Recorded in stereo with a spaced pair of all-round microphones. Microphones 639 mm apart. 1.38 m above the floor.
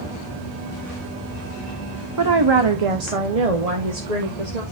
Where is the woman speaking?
30° right (ahead or behind), 0.8 m; by 4.6 s 75° right (ahead or behind), 1.9 m.